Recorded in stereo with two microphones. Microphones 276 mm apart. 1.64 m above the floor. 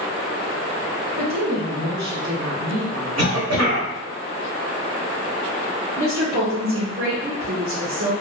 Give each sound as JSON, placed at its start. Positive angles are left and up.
{"t": 1.2, "sound": "a woman speaking", "side_deg": -80, "distance_m": 1.0}
{"t": 3.2, "sound": "a cough", "side_deg": -65, "distance_m": 1.4}
{"t": 6.0, "sound": "a woman speaking", "side_deg": -60, "distance_m": 0.8}